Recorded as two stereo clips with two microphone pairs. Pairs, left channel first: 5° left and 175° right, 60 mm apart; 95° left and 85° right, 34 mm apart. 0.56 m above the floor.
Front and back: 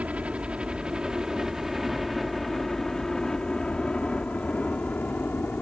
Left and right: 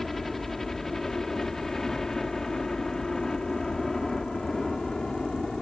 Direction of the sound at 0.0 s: 165° left.